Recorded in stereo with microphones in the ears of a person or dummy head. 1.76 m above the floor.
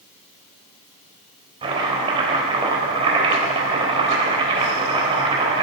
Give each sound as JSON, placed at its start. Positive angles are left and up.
{"t": 1.6, "sound": "chopping", "side_deg": -30, "distance_m": 3.5}